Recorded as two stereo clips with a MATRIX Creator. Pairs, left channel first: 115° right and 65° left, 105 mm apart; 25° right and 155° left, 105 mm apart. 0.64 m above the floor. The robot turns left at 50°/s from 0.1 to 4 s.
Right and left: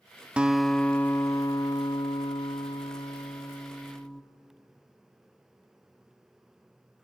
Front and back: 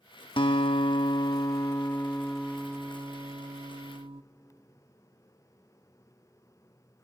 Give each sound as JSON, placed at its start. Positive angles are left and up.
{"t": 0.4, "sound": "a guitar", "azimuth_deg": -10, "distance_m": 0.8}